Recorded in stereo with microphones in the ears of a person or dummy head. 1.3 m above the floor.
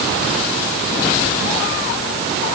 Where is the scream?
I don't hear a scream.